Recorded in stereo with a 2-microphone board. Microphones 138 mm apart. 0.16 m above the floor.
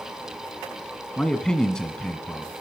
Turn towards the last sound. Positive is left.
turn(degrees=5)  # may be behind; listen again after turning